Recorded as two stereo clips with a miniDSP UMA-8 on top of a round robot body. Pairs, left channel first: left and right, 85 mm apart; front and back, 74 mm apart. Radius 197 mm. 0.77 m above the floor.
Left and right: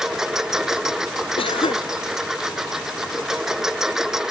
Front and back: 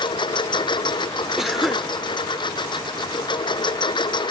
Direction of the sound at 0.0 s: 5° right.